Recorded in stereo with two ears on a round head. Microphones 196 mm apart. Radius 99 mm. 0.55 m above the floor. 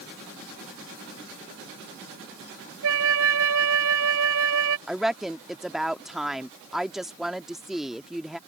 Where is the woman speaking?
Centre (ahead or behind).